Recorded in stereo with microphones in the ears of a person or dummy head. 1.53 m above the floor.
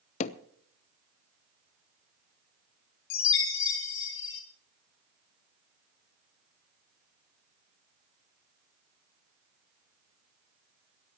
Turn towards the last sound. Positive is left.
turn(degrees=60)  # may be behind; listen again after turning